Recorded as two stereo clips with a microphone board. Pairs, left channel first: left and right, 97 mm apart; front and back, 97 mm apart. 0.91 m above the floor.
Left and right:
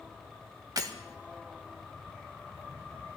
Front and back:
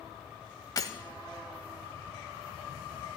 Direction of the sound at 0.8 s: 45° right.